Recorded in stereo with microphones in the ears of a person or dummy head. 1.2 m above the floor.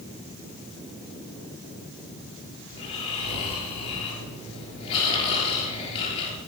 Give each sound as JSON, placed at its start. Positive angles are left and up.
{"t": 2.7, "sound": "snoring", "side_deg": 35, "distance_m": 6.5}